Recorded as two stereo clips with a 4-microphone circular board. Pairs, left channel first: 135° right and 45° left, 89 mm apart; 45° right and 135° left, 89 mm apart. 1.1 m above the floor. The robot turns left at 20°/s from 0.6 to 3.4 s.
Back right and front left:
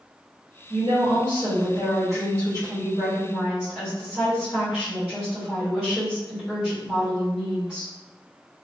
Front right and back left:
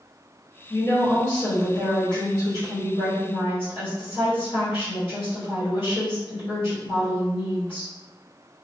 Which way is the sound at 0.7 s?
20° left.